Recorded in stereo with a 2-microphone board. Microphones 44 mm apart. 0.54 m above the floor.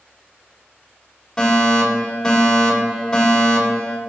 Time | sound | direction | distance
1.4 | a fire alarm | 10° left (ahead or behind) | 3.5 m